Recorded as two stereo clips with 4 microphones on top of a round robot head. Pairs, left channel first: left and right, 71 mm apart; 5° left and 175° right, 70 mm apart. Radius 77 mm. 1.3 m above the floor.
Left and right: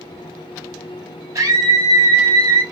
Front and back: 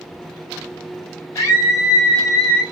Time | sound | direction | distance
1.4 | a scream | 45° right | 8 m